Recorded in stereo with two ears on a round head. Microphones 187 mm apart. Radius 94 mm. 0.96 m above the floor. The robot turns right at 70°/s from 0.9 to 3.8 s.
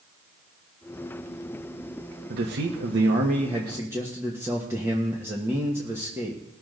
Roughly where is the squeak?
No squeak in this recording.